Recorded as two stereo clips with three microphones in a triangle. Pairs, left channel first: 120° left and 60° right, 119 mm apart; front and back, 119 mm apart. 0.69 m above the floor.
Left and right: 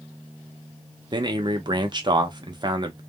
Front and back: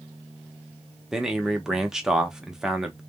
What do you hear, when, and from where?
1.1 s a man speaking: 95° right, 0.7 m